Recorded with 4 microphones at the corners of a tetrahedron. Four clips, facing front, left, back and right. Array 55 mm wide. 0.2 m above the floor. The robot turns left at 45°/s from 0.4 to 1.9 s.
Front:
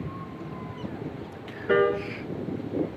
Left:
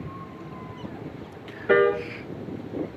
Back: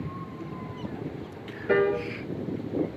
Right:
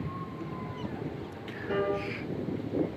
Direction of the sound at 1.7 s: 85° left.